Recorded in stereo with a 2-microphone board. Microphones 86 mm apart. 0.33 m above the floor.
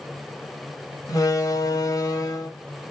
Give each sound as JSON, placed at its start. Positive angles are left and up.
{"t": 1.1, "sound": "a door slam", "side_deg": 45, "distance_m": 1.2}